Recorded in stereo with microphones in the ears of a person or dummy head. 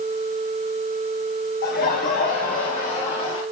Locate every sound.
1.6 s laughter: 50° left (ahead or behind), 1.7 m; by 3.4 s 45° left (ahead or behind), 4 m